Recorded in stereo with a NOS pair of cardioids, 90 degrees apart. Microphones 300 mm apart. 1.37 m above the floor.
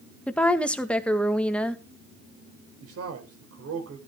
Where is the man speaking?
55° right, 4.5 m.